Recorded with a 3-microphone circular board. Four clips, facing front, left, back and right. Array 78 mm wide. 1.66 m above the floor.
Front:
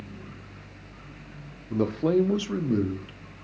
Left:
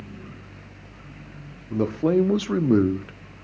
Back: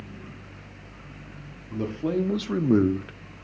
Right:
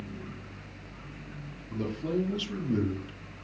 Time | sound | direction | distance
1.7 | a man speaking | 50° left | 1.0 m